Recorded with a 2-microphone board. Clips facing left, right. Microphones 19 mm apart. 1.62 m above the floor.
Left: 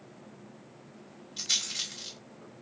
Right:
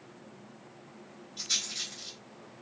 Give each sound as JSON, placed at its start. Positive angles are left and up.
{"t": 1.4, "sound": "a rattle", "side_deg": 55, "distance_m": 1.5}